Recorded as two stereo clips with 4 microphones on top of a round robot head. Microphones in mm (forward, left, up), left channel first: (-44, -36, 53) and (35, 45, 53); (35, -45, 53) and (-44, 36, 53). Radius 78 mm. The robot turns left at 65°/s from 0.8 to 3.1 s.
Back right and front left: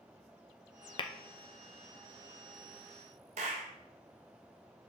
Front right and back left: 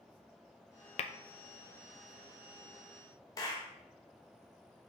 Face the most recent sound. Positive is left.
turn(degrees=15)